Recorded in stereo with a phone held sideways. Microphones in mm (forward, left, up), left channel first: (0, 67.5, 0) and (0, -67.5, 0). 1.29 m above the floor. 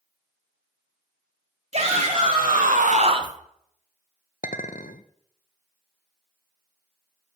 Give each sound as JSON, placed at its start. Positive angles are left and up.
{"t": 1.7, "sound": "a shout", "side_deg": -60, "distance_m": 2.0}
{"t": 4.4, "sound": "a clink", "side_deg": 75, "distance_m": 0.6}